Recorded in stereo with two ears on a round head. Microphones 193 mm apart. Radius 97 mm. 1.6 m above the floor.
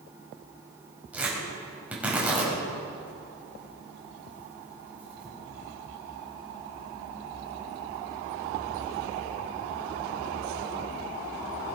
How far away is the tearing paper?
About 5 m.